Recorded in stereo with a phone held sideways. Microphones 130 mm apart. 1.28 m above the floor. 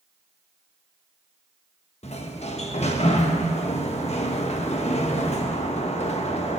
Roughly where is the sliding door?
Left.